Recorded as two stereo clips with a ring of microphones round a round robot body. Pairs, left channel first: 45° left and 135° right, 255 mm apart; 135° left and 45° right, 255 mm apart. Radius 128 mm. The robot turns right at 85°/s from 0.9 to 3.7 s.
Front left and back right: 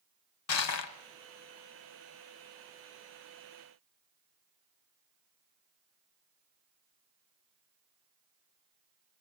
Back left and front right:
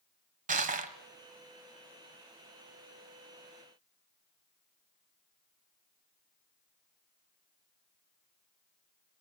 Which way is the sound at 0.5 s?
15° left.